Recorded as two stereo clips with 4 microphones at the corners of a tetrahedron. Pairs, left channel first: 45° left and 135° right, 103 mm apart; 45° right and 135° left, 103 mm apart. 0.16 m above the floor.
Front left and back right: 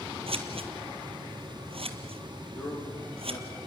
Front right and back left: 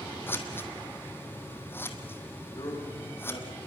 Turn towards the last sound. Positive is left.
turn(degrees=5)